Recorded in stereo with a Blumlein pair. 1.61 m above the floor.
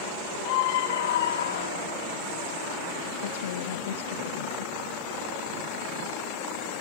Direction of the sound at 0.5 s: 45° left.